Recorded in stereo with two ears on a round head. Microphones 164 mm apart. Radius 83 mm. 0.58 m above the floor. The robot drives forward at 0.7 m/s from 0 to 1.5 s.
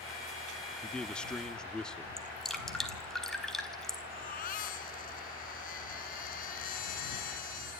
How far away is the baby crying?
About 3.5 m.